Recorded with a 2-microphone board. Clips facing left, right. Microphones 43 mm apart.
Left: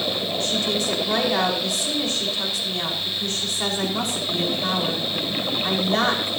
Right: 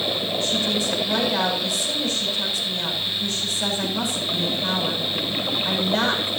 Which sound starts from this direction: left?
A woman speaking, at 0.4 s.